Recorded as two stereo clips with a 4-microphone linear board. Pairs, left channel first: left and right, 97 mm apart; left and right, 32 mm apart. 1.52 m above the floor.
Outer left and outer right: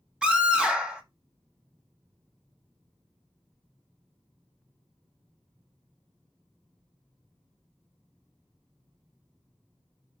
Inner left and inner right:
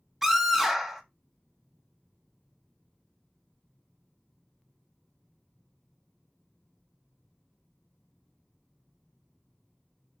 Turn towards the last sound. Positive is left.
turn(degrees=0)  # may be behind; listen again after turning